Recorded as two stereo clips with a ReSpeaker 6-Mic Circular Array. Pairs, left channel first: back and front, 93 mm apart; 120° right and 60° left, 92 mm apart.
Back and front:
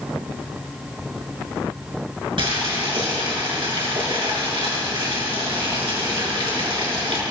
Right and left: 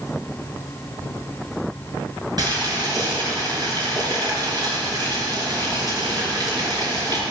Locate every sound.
2.4 s boiling: 20° left, 5.5 m